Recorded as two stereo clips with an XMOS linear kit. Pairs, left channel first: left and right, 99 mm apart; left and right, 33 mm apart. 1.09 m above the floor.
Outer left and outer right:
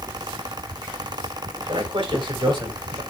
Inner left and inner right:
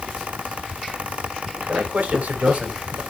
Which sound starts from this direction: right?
A man speaking, at 1.7 s.